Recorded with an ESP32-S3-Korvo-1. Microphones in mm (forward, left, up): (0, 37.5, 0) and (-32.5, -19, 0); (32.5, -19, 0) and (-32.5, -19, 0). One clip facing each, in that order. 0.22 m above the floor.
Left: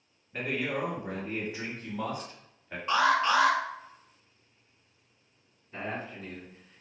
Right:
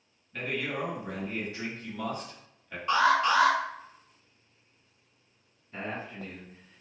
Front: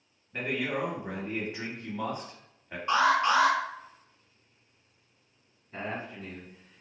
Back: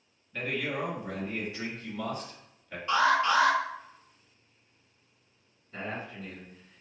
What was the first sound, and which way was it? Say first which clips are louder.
A man speaking: left 1 dB, front 1 dB; 25° left.